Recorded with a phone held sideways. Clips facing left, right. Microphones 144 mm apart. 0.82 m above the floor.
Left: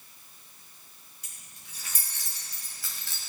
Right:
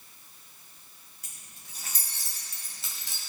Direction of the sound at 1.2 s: 50° right (ahead or behind).